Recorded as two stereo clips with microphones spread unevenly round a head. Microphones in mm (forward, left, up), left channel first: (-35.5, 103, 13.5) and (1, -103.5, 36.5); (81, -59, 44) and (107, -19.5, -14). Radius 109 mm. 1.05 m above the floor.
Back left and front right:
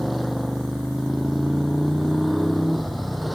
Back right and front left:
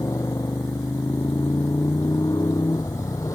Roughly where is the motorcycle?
Behind.